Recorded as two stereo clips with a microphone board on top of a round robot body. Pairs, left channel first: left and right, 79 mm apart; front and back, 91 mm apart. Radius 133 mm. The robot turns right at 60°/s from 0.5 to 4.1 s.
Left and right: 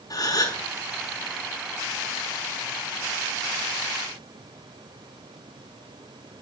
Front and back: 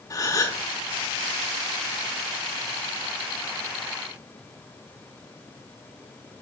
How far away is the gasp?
About 5 m.